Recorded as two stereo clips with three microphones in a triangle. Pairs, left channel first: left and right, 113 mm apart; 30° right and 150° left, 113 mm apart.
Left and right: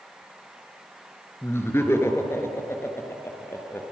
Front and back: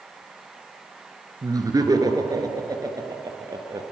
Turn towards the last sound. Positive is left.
turn(degrees=140)